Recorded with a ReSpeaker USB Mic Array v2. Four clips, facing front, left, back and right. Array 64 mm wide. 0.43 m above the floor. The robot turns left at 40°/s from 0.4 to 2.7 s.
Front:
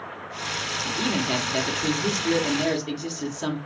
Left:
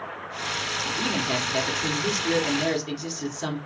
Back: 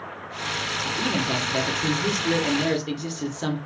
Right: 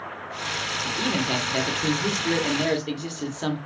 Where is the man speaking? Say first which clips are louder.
Right 2 dB, even; 40° right, 1.4 m; by 3.6 s 115° right, 1.4 m.